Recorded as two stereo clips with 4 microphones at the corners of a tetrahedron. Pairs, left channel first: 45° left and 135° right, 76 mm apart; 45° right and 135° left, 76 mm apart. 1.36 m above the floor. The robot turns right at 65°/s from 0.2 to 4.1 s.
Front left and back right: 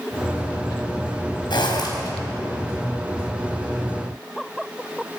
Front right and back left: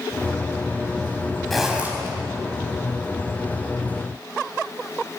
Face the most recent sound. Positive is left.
turn(degrees=-150)